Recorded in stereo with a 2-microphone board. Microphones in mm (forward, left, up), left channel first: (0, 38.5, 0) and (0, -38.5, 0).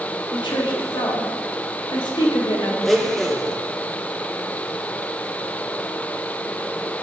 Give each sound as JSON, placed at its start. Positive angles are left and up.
{"t": 0.3, "sound": "a woman speaking", "side_deg": 80, "distance_m": 1.4}
{"t": 2.8, "sound": "a blender", "side_deg": 0, "distance_m": 0.7}